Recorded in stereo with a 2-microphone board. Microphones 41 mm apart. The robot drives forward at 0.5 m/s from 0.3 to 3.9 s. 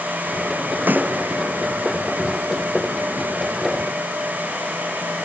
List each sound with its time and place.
0.9 s a snare drum: 50° right (ahead or behind)